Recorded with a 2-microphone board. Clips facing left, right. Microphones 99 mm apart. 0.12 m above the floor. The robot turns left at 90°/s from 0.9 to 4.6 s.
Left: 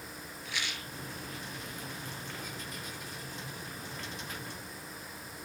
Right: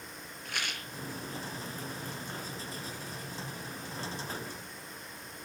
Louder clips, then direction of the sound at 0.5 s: Right 1 dB; 55° right (ahead or behind).